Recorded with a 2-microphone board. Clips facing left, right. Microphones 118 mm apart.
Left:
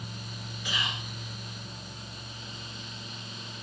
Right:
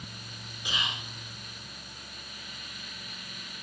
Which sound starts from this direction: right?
Whispering, at 0.7 s.